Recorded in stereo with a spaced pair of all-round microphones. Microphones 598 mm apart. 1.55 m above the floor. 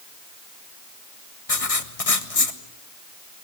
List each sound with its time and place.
1.5 s writing: 65° left (ahead or behind), 1.7 m